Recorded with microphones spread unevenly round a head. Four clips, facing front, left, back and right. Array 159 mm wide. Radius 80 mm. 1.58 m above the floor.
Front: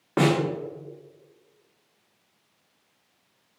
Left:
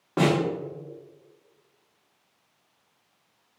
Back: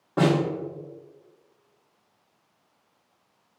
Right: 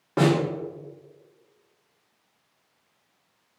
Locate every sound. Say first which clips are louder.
0.2 s a snare drum: right 1 dB, even; 10° right, 1.2 m